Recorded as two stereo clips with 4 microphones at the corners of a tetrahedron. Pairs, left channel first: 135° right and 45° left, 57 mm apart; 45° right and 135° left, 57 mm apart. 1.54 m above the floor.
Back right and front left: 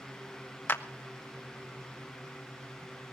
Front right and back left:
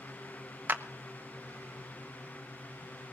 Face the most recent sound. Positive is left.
turn(degrees=180)